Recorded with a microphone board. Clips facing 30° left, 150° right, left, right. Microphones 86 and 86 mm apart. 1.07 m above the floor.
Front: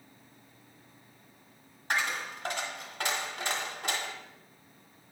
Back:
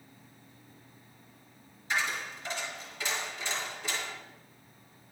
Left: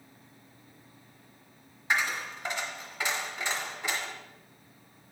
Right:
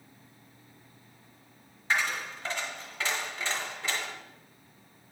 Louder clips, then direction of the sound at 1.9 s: Front 1 dB, even; 10° left.